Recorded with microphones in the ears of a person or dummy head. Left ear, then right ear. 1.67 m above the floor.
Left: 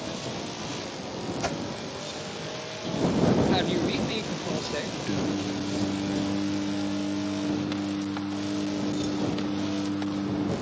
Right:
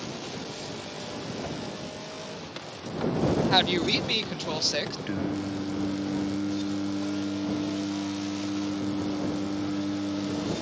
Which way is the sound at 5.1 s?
25° right (ahead or behind).